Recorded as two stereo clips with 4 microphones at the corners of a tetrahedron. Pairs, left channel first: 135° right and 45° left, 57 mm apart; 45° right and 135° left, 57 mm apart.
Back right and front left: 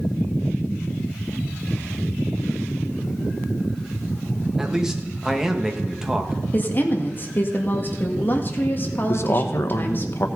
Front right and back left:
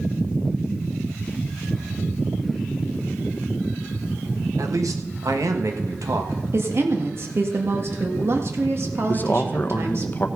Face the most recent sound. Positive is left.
turn(degrees=-100)